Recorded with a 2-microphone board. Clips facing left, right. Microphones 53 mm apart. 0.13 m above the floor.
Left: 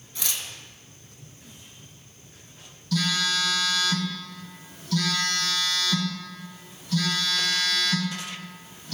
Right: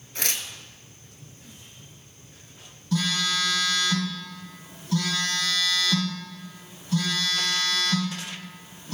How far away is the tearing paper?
About 0.6 m.